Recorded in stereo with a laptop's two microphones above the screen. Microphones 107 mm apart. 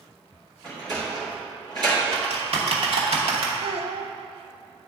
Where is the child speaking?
65° right (ahead or behind), 0.5 m.